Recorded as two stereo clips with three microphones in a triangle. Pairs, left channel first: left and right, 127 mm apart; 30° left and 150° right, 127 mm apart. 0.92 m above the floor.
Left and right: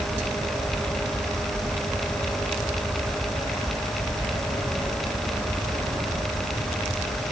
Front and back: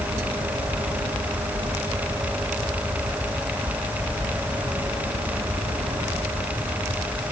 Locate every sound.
Only background noise.